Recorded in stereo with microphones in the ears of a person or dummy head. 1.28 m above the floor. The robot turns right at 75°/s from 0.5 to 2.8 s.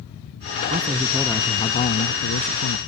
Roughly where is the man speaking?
Ahead right.